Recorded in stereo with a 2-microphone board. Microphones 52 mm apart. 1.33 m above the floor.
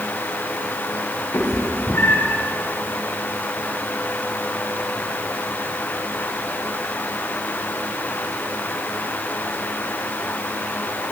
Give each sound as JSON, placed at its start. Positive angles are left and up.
{"t": 1.3, "sound": "a cat meowing", "side_deg": 75, "distance_m": 2.0}